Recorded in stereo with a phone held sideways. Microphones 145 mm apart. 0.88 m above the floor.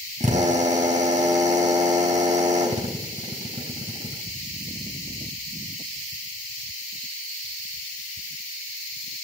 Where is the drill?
55° right (ahead or behind), 3 m.